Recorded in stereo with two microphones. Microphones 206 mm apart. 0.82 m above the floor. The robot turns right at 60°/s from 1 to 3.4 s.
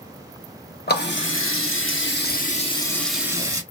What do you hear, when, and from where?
0.9 s a running tap: 55° left, 1.0 m; by 3.6 s 165° right, 1.0 m